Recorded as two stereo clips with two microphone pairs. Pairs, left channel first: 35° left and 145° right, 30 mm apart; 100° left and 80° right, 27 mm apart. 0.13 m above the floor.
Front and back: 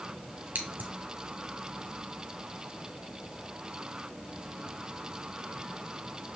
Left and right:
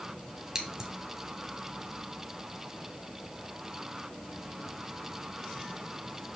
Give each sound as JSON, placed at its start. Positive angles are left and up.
{"t": 0.6, "sound": "scissors", "azimuth_deg": -155, "distance_m": 1.7}